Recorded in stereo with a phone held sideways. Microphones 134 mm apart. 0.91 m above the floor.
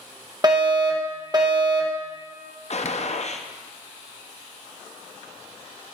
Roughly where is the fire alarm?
Right.